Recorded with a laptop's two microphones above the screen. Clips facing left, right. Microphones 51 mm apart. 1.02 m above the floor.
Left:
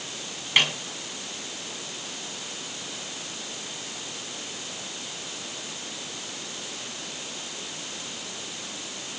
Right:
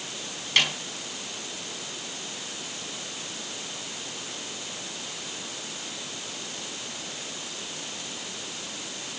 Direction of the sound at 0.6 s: 10° left (ahead or behind).